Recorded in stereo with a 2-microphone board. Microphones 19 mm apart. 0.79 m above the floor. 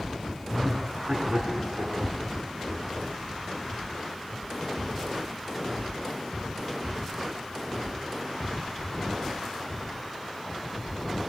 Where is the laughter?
75° right (ahead or behind), 8 m; by 1.9 s 70° right (ahead or behind), 7.5 m.